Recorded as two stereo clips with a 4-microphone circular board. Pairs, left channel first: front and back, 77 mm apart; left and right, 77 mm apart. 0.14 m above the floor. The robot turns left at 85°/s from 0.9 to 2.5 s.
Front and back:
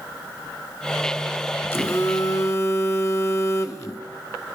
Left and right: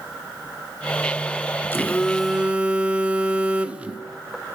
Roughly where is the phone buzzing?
Ahead left.